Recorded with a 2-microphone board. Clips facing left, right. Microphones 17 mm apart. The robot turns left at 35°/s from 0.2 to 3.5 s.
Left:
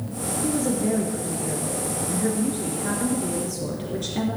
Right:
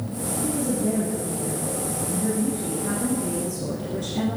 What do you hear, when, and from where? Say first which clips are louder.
0.4 s a woman speaking: left 1 dB; 135° left, 1.9 m; by 4.4 s 25° left, 1.9 m